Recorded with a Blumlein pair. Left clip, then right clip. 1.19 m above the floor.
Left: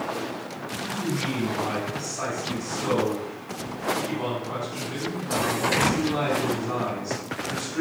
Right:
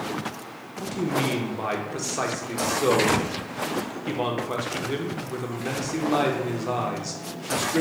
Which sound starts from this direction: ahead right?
A man speaking, at 0.8 s.